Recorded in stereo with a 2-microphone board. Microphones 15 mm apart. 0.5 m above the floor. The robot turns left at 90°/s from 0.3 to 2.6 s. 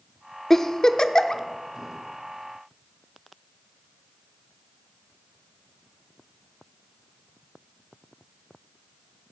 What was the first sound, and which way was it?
A giggle, 20° left (ahead or behind).